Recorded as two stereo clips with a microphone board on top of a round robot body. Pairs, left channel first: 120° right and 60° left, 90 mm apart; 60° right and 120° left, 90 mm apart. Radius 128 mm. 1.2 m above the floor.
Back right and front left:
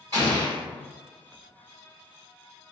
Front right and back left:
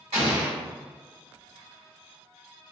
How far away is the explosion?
About 1.1 m.